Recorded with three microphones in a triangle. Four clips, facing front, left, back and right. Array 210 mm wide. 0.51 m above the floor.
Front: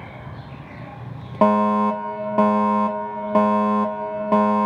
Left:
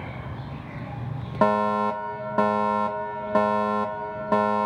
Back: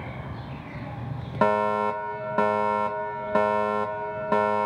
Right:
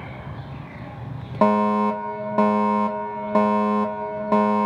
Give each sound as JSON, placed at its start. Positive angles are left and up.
{"t": 1.4, "sound": "a fire alarm", "azimuth_deg": -20, "distance_m": 1.6}